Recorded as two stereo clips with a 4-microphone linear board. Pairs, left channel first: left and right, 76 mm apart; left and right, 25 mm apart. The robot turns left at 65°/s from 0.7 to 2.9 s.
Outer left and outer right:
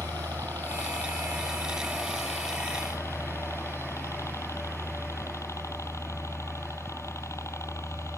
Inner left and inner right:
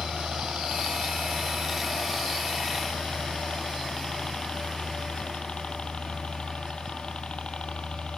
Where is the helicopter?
80° right; by 8.2 s 135° left.